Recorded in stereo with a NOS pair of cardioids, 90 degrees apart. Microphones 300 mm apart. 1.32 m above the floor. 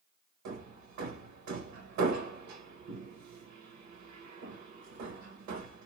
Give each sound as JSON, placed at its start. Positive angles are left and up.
{"t": 0.5, "sound": "hammering", "azimuth_deg": -70, "distance_m": 1.1}